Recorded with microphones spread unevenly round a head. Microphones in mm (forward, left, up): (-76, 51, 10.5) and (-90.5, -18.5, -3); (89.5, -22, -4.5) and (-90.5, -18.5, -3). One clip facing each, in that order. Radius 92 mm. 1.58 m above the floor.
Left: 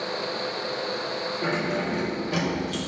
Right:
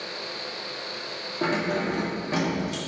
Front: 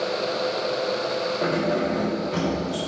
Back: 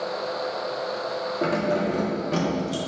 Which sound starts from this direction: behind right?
Keys jangling, at 1.4 s.